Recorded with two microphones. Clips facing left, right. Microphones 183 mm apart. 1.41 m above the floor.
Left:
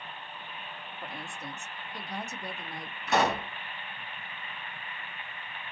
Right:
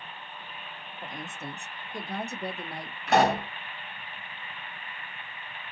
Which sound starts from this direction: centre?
A woman speaking, at 1.0 s.